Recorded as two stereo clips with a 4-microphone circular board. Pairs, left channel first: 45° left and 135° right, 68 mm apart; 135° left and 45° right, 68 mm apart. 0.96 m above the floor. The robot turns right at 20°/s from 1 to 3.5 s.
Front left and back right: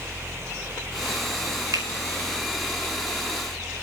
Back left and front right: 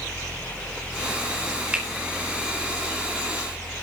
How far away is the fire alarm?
No fire alarm in this recording.